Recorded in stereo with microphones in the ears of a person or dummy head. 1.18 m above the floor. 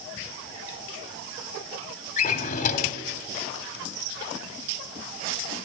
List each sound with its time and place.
2.2 s a drawer: 40° left (ahead or behind), 1.1 m